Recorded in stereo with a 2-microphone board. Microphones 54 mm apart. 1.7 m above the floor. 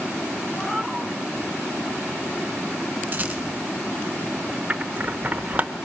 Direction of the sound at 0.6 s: 5° left (ahead or behind).